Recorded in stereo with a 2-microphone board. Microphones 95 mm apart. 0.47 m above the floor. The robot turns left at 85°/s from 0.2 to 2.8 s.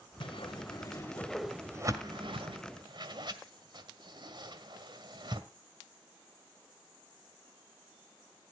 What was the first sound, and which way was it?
A whoosh, 65° left (ahead or behind).